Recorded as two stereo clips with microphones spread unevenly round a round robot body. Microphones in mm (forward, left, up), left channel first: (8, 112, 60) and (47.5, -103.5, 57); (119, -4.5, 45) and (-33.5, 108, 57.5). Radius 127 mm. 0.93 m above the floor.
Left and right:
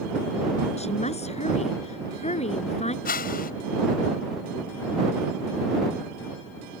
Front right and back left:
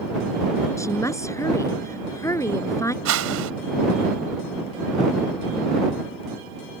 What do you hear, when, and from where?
0.8 s a woman speaking: 40° left
3.0 s a whoosh: 155° left